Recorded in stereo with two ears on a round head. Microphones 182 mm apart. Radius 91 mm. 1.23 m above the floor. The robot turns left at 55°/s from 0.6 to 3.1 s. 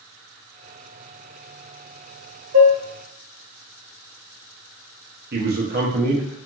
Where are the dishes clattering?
70° right (ahead or behind), 1.2 m; by 2.8 s 60° right (ahead or behind), 1.2 m.